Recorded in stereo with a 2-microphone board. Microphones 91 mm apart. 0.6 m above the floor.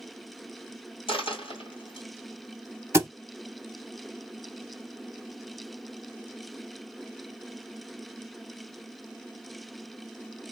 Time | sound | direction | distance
1.1 | a dropped coin | 70° left (ahead or behind) | 1.5 m
2.9 | a thud | 30° right (ahead or behind) | 0.9 m